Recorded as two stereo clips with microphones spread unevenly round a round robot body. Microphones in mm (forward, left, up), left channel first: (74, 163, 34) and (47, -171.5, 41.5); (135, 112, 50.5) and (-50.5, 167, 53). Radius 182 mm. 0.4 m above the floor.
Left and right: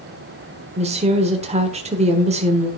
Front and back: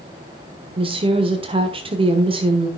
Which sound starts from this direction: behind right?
A woman speaking, at 0.8 s.